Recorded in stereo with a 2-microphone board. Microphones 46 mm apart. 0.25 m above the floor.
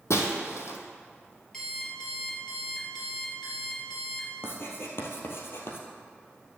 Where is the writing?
60° left (ahead or behind), 1.7 m.